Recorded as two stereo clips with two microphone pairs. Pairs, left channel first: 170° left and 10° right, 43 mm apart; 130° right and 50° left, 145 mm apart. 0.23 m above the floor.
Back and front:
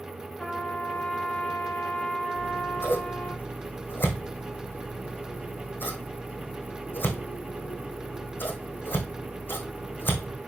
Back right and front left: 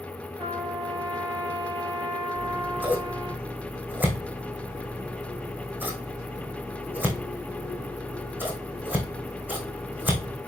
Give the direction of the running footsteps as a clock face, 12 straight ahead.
I don't hear running footsteps.